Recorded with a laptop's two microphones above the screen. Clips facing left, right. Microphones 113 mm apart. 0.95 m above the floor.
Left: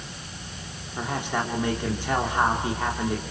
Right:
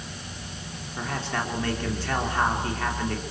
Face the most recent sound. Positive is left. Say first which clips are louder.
# left 2 dB
turn(degrees=15)  # may be behind; listen again after turning